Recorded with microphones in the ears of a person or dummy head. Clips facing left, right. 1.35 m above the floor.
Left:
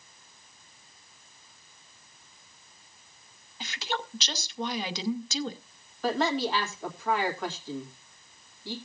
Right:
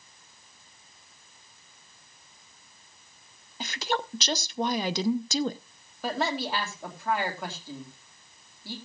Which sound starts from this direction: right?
A woman speaking, at 3.6 s.